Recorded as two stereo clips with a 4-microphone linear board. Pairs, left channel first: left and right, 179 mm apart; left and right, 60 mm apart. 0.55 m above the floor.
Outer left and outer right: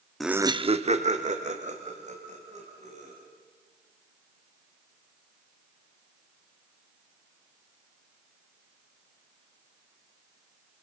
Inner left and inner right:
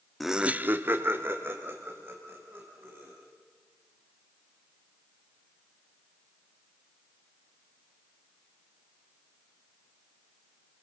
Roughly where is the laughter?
Centre.